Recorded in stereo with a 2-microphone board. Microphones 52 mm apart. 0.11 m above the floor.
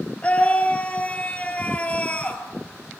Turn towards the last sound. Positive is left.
turn(degrees=25)  # may be behind; listen again after turning